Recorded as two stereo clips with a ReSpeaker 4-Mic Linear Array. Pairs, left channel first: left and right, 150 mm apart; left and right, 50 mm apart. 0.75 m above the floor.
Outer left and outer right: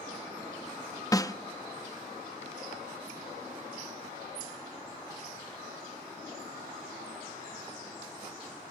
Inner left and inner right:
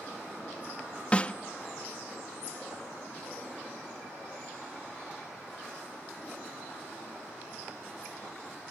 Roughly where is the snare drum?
Left.